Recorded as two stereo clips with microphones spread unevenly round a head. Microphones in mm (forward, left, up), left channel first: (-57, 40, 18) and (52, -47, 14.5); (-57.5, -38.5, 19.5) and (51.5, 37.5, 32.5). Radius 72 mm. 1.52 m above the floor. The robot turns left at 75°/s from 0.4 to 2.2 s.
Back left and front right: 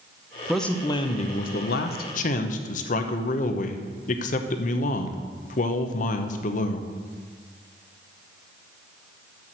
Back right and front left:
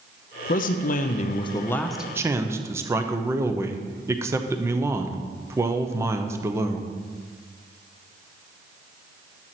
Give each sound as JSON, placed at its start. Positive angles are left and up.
{"t": 0.5, "sound": "a man speaking", "azimuth_deg": -125, "distance_m": 0.8}